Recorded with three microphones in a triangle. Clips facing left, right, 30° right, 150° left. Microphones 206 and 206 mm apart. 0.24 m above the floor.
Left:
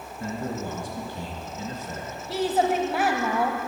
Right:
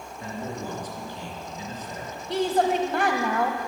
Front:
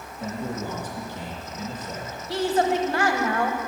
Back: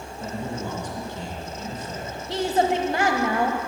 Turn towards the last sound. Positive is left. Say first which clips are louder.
# right 1 dB, even
turn(degrees=170)